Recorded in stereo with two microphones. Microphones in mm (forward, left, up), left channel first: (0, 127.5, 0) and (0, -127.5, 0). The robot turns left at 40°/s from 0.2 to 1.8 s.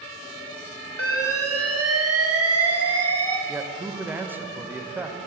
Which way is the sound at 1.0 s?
60° right.